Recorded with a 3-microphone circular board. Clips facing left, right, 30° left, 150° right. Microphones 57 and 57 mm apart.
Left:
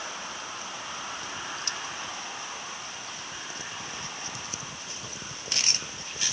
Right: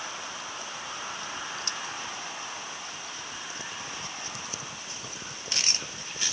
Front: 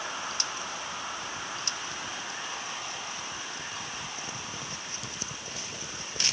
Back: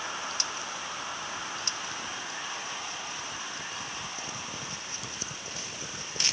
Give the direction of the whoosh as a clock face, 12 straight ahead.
I don't hear a whoosh.